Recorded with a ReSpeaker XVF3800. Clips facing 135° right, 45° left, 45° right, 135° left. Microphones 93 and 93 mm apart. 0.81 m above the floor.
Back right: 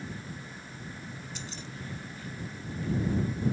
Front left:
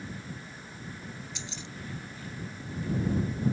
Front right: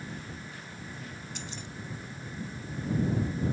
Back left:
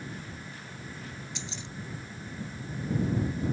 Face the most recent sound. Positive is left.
turn(degrees=-90)